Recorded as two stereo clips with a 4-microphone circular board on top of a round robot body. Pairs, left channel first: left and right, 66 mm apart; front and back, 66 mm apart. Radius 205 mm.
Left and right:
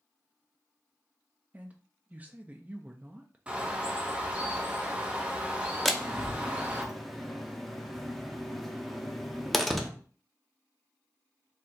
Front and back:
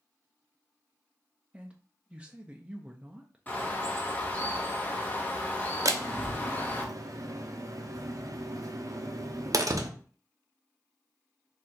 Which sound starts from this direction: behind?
A door slam, at 5.8 s.